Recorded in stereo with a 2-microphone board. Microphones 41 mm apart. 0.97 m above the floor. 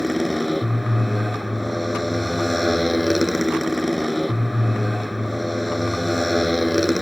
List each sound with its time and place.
0.0 s a motorcycle: centre (ahead or behind)